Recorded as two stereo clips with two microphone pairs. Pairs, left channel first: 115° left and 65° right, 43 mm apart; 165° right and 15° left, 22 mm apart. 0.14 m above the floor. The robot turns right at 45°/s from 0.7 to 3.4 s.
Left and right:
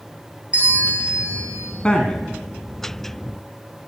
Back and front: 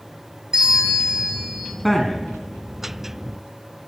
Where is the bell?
15° right, 1.8 m; by 1.7 s 30° left, 1.8 m.